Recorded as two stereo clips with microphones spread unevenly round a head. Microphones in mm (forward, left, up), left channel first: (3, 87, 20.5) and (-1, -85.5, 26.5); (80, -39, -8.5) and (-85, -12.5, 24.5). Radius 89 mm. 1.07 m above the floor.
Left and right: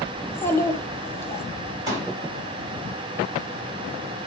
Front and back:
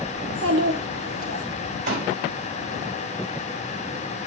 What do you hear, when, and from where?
0.2 s a child speaking: 165° left, 1.6 m
1.9 s a pop: 160° right, 4.5 m